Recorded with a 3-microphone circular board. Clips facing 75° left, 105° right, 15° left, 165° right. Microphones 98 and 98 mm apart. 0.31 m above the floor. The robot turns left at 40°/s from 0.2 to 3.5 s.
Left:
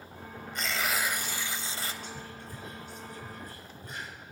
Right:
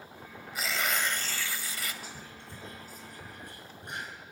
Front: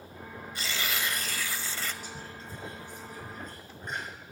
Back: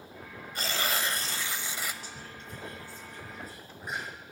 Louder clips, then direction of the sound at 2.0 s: Left 3 dB, front 2 dB; 20° right.